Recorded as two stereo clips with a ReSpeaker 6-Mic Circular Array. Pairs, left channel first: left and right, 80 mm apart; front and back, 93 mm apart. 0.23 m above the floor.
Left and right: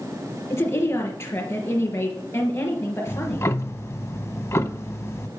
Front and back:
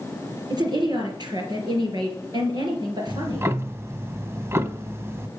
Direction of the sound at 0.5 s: 145° left.